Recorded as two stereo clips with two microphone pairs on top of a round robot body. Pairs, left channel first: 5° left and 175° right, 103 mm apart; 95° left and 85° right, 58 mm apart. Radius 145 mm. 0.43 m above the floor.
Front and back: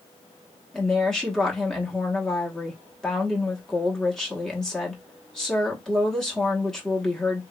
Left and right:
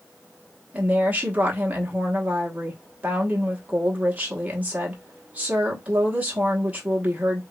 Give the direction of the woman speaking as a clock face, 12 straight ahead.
2 o'clock.